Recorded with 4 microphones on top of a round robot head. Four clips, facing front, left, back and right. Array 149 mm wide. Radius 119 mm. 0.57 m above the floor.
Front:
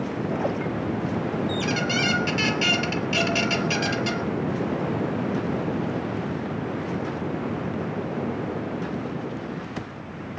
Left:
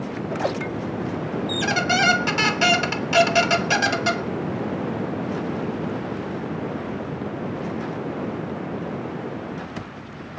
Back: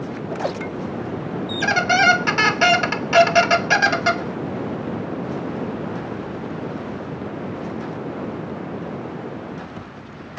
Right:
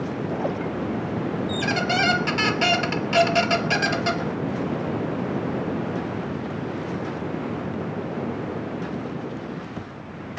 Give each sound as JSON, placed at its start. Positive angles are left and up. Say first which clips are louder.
{"t": 1.5, "sound": "a squeak", "louder": "left 3 dB, back 6 dB", "azimuth_deg": 170, "distance_m": 0.7}